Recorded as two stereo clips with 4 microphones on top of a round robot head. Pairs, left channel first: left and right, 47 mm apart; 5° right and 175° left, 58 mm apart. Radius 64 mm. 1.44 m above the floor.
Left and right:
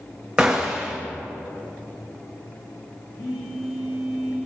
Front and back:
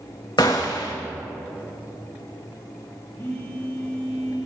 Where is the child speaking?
No child speaking in this recording.